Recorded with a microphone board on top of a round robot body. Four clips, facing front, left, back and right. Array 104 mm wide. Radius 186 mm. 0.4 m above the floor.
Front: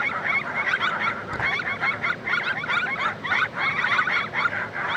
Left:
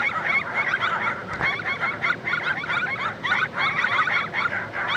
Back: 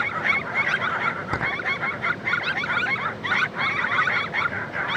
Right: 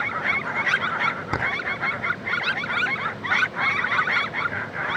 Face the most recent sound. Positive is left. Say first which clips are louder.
# right 2 dB, back 2 dB
turn(degrees=-120)